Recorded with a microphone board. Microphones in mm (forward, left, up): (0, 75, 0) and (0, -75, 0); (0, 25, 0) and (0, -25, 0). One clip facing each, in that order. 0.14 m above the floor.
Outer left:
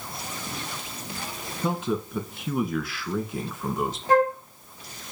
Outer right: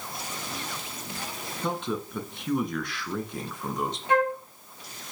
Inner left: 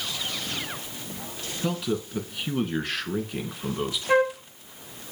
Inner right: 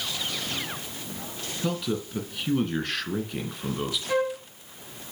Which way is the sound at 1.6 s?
5° left (ahead or behind).